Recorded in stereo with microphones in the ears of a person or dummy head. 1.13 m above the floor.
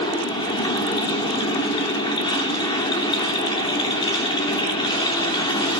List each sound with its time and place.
0.0 s a machine running: 20° left (ahead or behind), 3.5 m